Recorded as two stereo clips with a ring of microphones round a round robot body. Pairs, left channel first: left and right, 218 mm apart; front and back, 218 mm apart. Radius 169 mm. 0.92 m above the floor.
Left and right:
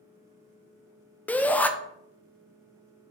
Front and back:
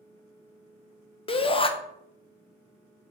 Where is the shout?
15° left, 0.6 m.